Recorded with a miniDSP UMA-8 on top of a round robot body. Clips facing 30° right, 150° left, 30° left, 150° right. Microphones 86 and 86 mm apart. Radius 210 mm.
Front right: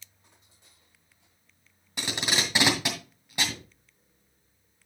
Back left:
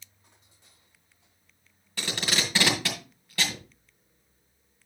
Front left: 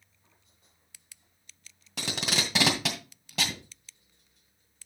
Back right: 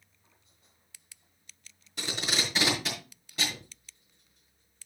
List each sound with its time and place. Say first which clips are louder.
2.0 s tape being pulled: even, front left 1 dB; 45° left, 2.5 m